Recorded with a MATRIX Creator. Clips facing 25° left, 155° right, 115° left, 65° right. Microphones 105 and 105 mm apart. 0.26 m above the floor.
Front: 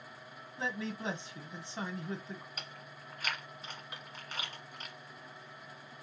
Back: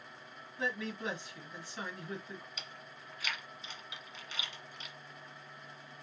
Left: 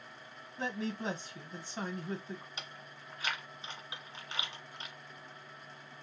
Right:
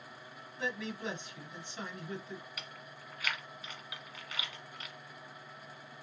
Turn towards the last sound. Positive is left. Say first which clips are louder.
# front 2 dB, even
turn(degrees=55)